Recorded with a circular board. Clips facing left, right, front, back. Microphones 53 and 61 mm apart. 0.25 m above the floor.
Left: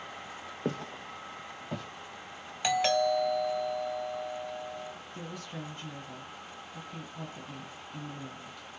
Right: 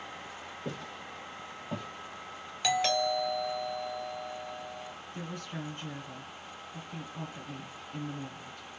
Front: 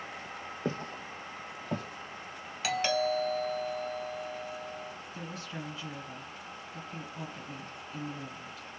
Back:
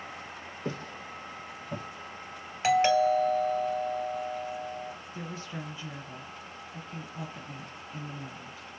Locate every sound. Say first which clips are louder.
0.7 s footsteps: left 6 dB, front 1 dB; 55° left, 0.6 m; by 1.9 s 10° right, 0.7 m
2.6 s a doorbell: left 2 dB, back 7 dB; 155° left, 2 m
5.1 s a woman speaking: right 3 dB, back 1 dB; 100° right, 1.4 m